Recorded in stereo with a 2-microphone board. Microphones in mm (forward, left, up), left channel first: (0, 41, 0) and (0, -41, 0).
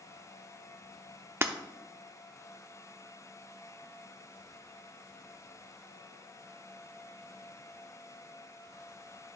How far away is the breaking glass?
About 0.6 m.